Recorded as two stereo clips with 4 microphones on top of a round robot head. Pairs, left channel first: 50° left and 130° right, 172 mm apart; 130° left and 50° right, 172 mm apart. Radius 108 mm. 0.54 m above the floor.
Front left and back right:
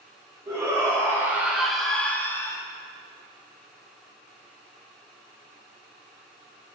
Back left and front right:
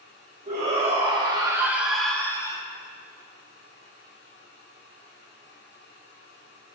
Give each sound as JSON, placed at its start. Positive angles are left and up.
{"t": 0.5, "sound": "a shout", "azimuth_deg": -70, "distance_m": 1.8}